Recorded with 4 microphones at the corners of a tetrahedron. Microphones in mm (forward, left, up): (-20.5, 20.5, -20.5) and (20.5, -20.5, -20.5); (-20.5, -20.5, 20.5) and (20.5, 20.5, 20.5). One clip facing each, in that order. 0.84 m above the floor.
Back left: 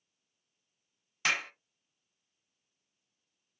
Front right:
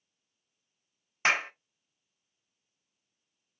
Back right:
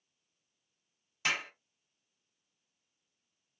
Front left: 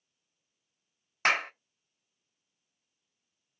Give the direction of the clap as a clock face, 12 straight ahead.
12 o'clock.